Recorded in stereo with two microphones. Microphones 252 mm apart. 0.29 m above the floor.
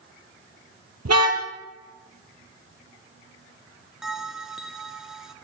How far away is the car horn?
About 4.5 m.